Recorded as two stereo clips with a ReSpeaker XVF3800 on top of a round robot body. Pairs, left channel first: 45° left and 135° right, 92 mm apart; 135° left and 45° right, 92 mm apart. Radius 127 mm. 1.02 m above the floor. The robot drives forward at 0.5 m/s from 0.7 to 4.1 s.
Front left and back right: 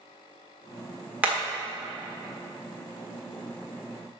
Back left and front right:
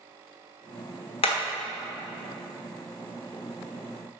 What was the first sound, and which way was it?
Hammering, 150° left.